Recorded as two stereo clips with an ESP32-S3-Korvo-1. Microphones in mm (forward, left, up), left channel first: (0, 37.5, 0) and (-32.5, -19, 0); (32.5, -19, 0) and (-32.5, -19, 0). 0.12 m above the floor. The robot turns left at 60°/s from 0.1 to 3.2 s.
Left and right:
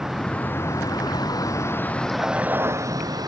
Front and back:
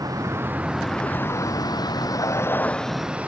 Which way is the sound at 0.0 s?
155° left.